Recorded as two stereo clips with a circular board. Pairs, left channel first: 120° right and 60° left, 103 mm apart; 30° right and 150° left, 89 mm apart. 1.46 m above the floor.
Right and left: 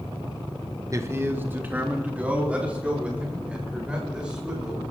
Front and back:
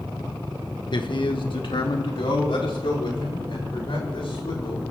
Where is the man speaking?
Straight ahead, 1.2 m; by 4.8 s 20° right, 7 m.